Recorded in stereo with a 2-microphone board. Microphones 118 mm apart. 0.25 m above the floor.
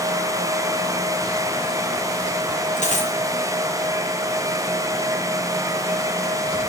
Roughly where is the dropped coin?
Left.